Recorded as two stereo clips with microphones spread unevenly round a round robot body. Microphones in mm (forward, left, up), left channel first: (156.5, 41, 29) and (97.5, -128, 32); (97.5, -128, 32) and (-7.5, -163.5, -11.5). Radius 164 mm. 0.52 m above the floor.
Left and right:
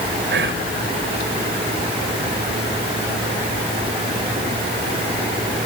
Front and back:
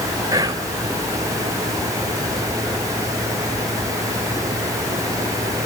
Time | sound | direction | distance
0.3 | whispering | 120° right | 2.5 m